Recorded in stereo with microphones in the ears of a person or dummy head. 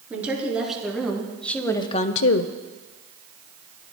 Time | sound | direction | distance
0.1 | a woman speaking | 10° right (ahead or behind) | 3.5 m